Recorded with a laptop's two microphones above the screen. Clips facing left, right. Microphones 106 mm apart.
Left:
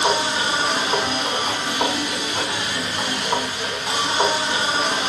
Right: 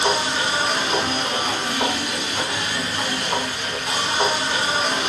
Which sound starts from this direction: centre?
A machine running, at 0.0 s.